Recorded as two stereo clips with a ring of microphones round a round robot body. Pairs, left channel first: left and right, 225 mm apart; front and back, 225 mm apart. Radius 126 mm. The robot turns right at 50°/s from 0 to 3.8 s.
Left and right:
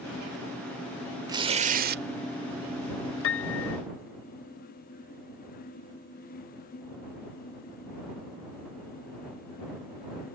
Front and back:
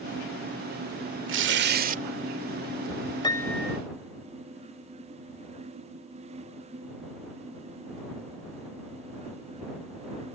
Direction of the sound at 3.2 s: 70° left.